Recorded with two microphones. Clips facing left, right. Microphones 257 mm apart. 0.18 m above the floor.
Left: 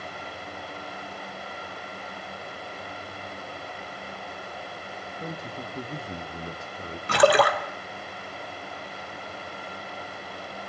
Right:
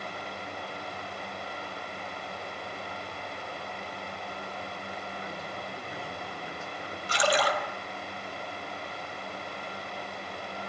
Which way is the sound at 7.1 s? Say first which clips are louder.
Left 8 dB; 65° left (ahead or behind).